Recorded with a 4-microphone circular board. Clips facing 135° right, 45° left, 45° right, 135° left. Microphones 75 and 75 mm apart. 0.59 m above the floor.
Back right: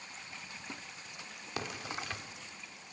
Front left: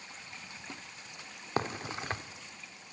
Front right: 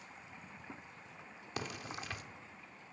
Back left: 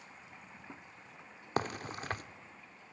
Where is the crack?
95° left, 0.8 m.